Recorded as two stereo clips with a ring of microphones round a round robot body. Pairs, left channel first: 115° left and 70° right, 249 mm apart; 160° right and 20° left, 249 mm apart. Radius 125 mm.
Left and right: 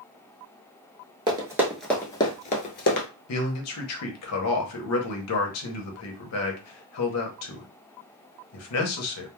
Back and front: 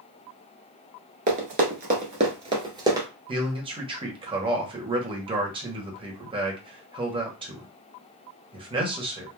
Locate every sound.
1.3 s running footsteps: 10° right, 0.9 m; by 3.1 s 95° left, 1.0 m
3.3 s a man speaking: 90° left, 0.9 m